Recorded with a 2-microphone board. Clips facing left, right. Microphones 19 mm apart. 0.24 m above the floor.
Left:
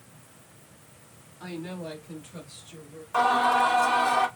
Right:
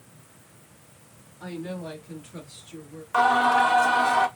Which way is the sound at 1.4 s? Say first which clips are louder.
Right 2 dB; 35° left (ahead or behind).